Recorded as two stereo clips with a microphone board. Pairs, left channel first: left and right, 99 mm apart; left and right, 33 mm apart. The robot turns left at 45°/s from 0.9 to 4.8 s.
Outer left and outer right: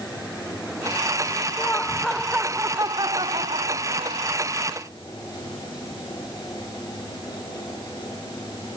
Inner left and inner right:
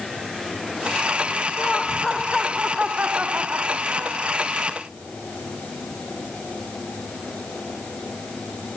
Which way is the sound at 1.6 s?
20° left.